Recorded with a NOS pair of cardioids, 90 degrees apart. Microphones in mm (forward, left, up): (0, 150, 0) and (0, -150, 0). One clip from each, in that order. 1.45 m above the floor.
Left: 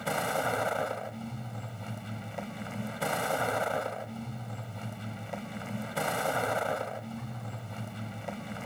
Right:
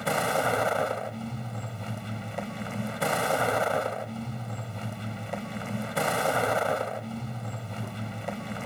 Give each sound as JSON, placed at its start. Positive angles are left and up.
{"t": 0.0, "sound": "a vehicle", "azimuth_deg": -25}